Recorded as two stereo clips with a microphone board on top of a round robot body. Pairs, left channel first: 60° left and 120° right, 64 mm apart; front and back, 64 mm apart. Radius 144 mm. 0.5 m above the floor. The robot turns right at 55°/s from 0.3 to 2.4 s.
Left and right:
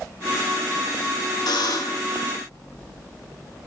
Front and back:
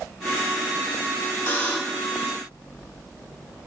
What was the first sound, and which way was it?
A buzzer, 65° left.